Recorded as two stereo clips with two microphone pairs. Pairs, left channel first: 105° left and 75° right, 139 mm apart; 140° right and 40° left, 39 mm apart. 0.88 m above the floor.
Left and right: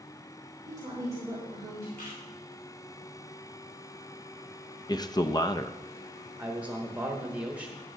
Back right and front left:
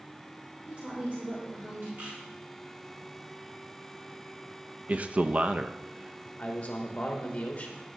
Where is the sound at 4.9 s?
65° left, 0.6 m.